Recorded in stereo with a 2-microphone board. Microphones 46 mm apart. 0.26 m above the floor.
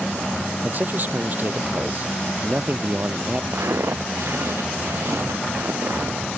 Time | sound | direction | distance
0.6 | a man speaking | 45° right (ahead or behind) | ?
3.5 | footsteps | 80° right | ?